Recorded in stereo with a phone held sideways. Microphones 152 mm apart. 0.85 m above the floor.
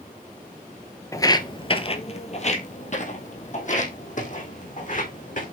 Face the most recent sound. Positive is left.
turn(degrees=60)  # may be behind; listen again after turning